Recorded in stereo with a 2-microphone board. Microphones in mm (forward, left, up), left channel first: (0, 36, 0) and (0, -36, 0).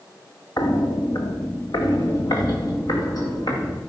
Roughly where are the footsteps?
Left.